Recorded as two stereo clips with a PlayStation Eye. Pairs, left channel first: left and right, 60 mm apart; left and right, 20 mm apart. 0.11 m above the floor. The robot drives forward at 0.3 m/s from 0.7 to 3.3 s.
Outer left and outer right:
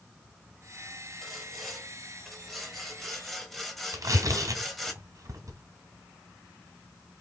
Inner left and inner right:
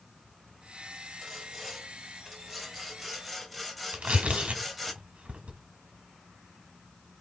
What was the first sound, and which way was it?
Sawing, 5° left (ahead or behind).